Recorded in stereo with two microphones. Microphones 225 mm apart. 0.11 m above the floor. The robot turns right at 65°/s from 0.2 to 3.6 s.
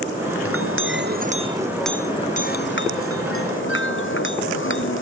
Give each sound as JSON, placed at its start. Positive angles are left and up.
{"t": 0.5, "sound": "a clink", "azimuth_deg": -90}